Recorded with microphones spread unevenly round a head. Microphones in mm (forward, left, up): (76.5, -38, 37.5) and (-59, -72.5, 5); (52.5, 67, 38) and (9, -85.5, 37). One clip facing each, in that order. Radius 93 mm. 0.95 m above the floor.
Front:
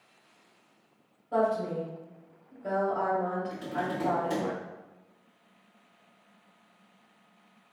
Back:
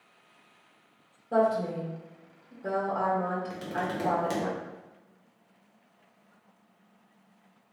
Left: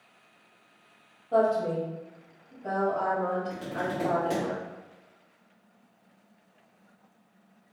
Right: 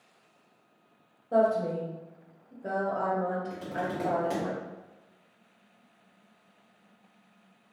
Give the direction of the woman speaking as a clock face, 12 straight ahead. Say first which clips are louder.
Back 2 dB, left 1 dB; 5 o'clock.